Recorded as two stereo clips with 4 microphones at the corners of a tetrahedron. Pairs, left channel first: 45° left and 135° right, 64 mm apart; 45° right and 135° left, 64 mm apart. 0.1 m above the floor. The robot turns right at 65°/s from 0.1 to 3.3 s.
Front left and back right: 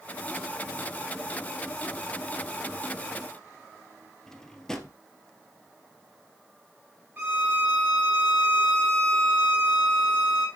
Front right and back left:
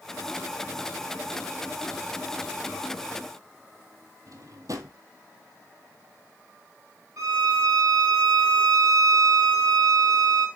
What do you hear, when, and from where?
4.3 s a drawer: 125° left, 1.6 m
7.2 s a violin: 170° left, 2.5 m